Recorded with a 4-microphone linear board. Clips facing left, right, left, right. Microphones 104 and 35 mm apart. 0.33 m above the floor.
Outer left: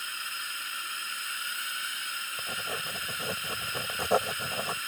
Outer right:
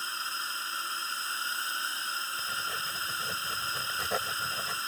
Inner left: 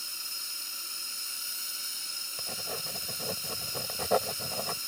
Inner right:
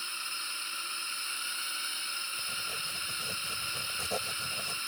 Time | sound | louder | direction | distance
0.0 | a drone | outer right 3 dB, inner right 4 dB | 30° right (ahead or behind) | ?
2.4 | writing | even, inner right 2 dB | 40° left (ahead or behind) | ?